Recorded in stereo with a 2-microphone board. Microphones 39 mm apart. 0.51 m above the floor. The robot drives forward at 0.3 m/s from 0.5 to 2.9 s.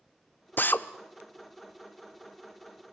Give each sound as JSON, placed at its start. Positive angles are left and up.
{"t": 0.6, "sound": "a drill", "side_deg": 50, "distance_m": 0.6}